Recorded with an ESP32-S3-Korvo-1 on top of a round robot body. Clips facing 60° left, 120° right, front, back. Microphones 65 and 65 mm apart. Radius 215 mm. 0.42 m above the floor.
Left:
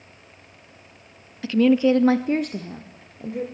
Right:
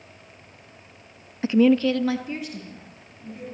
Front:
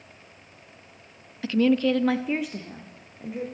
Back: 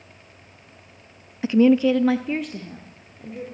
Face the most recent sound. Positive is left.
turn(degrees=80)